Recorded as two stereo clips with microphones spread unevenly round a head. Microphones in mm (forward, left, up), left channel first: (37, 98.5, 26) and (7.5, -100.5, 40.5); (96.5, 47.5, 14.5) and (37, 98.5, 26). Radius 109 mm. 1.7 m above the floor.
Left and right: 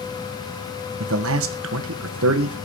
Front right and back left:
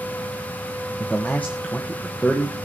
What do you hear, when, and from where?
1.0 s a man speaking: 125° right, 1.4 m